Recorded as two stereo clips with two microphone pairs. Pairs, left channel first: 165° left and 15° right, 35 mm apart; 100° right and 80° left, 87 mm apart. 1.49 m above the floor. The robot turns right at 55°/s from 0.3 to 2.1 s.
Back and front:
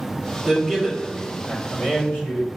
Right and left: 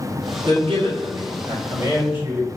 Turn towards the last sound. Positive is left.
turn(degrees=145)